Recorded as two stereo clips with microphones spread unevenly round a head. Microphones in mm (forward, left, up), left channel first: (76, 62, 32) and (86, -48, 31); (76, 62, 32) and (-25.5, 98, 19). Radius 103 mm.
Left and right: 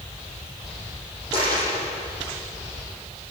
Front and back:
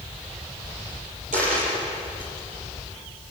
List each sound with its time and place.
1.3 s a dropped coin: 160° right, 7 m